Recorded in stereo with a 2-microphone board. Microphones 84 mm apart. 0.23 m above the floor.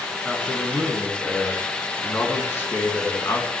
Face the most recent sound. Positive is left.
turn(degrees=40)  # may be behind; listen again after turning